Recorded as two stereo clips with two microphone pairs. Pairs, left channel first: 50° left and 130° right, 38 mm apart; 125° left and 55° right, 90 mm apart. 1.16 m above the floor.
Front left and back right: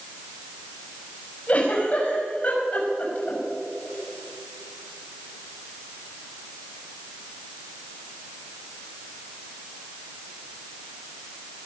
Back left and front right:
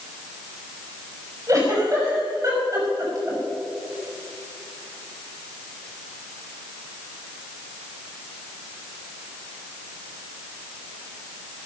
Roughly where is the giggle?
Ahead.